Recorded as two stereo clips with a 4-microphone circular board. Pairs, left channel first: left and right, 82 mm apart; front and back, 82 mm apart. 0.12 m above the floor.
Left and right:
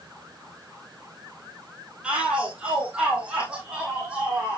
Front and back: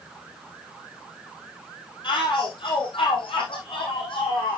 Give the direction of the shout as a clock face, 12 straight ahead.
12 o'clock.